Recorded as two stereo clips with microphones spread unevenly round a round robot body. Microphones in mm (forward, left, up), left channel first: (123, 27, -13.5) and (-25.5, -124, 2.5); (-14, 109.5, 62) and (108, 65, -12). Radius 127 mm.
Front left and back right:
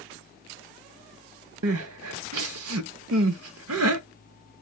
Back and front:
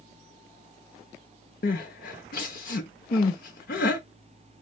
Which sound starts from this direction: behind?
Crying, at 1.6 s.